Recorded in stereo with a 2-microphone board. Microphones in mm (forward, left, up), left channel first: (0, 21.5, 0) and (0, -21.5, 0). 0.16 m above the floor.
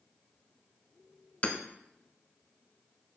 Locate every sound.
1.4 s hammering: 35° left (ahead or behind), 0.8 m